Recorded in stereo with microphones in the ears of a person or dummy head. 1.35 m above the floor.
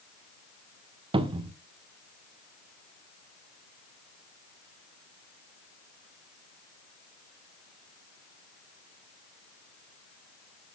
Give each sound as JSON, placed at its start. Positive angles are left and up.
{"t": 1.1, "sound": "a cupboard door", "side_deg": -25, "distance_m": 0.6}